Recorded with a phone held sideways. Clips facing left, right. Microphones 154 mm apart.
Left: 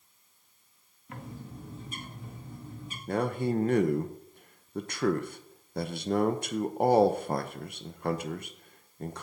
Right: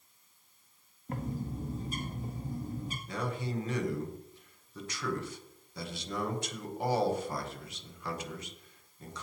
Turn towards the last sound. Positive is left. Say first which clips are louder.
# left 9 dB
turn(degrees=55)  # may be behind; listen again after turning